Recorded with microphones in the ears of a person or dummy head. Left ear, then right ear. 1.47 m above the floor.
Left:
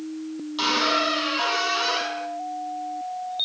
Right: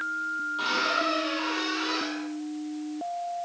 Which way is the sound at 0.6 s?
70° left (ahead or behind).